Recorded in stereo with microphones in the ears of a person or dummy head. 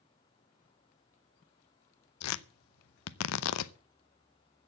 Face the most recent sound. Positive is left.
turn(degrees=75)  # may be behind; listen again after turning